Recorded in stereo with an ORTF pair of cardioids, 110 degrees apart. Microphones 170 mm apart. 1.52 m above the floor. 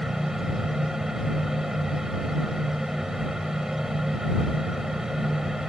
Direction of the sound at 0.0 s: Straight ahead.